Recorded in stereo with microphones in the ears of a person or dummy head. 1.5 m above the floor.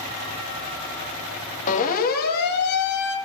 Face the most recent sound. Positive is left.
turn(degrees=65)  # may be behind; listen again after turning